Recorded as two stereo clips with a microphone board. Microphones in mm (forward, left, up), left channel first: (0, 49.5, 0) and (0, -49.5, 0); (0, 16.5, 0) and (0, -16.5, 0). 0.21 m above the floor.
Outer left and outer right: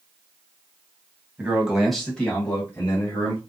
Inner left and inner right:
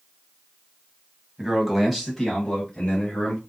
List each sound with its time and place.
1.4 s a man speaking: 15° right (ahead or behind), 1.0 m; by 3.4 s 30° left (ahead or behind), 1.7 m